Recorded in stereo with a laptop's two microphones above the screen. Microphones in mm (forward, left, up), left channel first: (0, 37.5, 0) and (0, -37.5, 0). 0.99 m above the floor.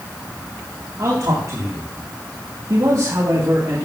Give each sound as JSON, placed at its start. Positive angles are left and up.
{"t": 1.0, "sound": "a man speaking", "side_deg": -55, "distance_m": 3.0}